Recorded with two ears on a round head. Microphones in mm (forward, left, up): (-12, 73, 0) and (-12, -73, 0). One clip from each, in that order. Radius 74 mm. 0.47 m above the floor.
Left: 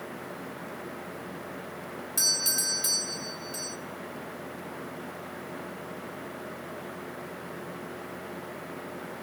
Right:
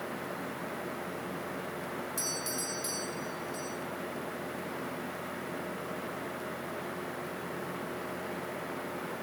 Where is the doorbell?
35° left (ahead or behind), 2 m.